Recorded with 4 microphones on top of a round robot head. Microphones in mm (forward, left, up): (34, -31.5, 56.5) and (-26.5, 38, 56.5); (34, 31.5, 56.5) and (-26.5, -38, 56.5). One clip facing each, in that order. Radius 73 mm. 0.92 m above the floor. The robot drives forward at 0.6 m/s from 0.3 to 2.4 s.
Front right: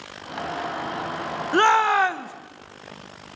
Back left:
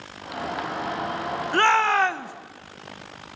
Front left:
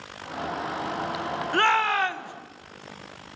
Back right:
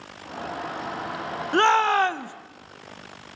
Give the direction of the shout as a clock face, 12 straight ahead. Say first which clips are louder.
Front right 2 dB, back right 4 dB; 3 o'clock.